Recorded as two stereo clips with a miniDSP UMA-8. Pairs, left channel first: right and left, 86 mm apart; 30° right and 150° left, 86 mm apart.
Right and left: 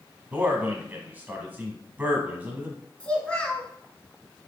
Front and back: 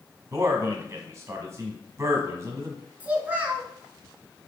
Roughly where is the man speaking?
Behind left.